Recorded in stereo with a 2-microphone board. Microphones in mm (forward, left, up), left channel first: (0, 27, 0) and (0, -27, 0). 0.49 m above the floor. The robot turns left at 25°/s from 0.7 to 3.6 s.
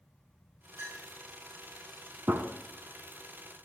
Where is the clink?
60° right (ahead or behind), 4.5 m; by 1.0 s 55° right (ahead or behind), 4.5 m.